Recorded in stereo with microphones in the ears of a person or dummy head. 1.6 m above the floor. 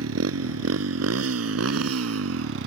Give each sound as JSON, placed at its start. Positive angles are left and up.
{"t": 0.0, "sound": "a motorcycle", "side_deg": -85}